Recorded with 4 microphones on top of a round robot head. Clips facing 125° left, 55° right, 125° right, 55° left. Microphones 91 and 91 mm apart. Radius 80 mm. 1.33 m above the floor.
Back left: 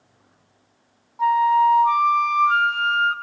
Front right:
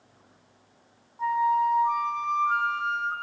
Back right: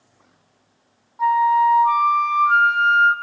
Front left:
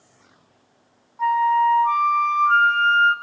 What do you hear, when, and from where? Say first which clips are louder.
1.2 s a flute: back left 7 dB, back right 2 dB; 150° left, 0.6 m